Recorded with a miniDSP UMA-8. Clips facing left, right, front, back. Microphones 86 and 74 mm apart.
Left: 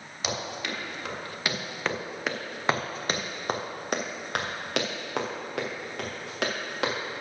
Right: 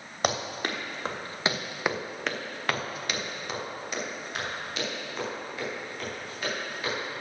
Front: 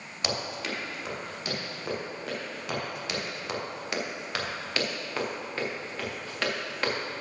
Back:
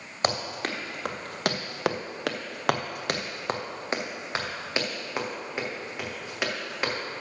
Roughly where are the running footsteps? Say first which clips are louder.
Right 4 dB, back 4 dB; behind right.